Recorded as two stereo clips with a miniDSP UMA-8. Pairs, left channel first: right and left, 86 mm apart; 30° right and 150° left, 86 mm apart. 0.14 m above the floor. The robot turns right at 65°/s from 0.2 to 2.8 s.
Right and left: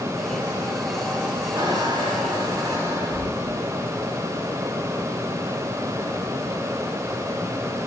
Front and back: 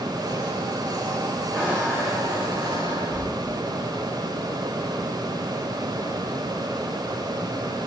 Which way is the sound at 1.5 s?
65° left.